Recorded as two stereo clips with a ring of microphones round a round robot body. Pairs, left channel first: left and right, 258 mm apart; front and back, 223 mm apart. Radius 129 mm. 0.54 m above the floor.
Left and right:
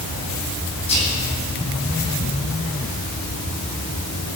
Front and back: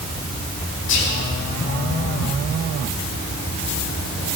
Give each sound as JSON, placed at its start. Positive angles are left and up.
{"t": 0.9, "sound": "whispering", "azimuth_deg": 25, "distance_m": 5.0}